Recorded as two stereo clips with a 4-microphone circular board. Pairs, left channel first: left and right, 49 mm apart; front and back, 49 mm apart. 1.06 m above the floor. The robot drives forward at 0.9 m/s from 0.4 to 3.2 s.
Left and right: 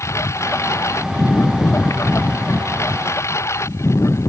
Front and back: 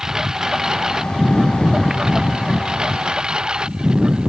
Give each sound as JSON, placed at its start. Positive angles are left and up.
{"t": 0.0, "sound": "a lawn mower", "azimuth_deg": 100}